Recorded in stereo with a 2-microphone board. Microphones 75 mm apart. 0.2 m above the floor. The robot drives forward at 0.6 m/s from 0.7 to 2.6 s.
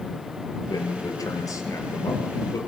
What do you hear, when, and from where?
0.7 s a man speaking: 55° left (ahead or behind), 4 m; by 2.6 s 45° left (ahead or behind), 4.5 m